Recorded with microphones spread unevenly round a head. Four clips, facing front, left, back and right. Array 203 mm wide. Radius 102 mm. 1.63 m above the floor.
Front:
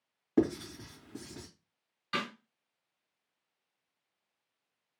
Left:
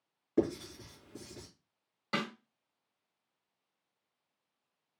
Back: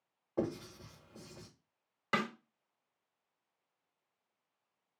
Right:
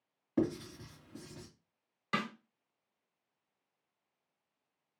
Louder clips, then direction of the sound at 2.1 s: Even, back 2 dB; 165° left.